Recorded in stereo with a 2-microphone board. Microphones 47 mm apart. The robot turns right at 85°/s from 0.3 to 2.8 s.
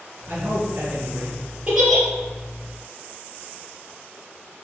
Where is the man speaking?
125° right, 3.5 m; by 1.4 s 35° right, 3.5 m.